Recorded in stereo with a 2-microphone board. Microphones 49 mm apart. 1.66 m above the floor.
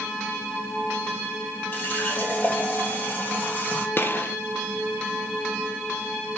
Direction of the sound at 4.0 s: 45° left (ahead or behind).